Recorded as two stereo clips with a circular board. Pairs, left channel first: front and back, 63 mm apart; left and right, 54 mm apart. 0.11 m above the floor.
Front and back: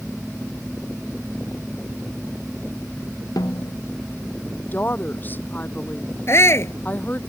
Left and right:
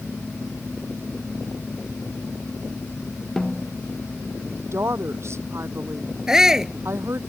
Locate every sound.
3.4 s a snare drum: 10° left
4.7 s a woman speaking: 60° right
6.3 s a shout: 15° right